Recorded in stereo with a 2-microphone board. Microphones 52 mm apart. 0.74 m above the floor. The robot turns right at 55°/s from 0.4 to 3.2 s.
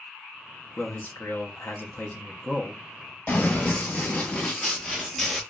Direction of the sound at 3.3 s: 35° left (ahead or behind).